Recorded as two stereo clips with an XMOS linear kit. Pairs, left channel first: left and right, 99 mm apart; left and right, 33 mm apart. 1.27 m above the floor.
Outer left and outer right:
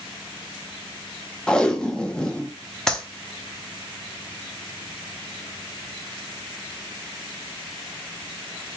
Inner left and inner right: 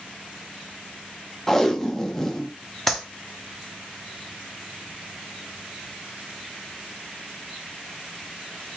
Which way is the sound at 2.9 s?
5° left (ahead or behind).